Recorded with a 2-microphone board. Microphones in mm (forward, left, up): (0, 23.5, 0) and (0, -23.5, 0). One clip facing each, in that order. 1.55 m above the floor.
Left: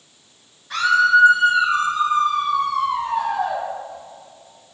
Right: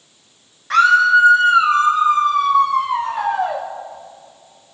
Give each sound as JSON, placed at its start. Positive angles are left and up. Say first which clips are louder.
{"t": 0.7, "sound": "a scream", "louder": "right 4 dB", "side_deg": -75, "distance_m": 7.0}